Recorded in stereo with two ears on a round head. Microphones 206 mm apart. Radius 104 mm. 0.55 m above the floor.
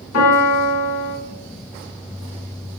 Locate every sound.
0.1 s a piano: 70° left (ahead or behind), 0.9 m